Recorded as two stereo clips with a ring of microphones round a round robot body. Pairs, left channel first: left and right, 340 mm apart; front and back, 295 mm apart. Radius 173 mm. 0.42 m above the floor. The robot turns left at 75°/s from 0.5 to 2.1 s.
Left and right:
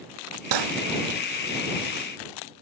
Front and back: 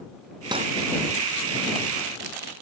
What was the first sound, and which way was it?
Cutlery clinking, 100° right.